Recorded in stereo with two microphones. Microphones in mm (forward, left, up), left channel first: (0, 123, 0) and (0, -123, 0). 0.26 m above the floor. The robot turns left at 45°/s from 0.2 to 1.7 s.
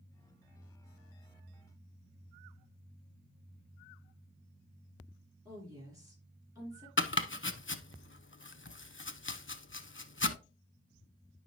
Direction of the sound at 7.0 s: 55° left (ahead or behind).